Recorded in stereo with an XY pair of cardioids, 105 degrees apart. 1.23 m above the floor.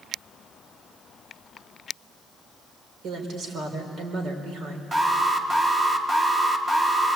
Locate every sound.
3.0 s a woman speaking: 70° right, 4.5 m
4.9 s an alarm: 25° right, 2 m